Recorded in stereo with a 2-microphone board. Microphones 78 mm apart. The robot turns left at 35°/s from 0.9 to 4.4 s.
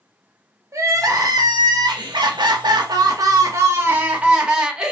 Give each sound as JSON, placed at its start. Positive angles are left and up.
{"t": 0.7, "sound": "crying", "azimuth_deg": -45, "distance_m": 0.6}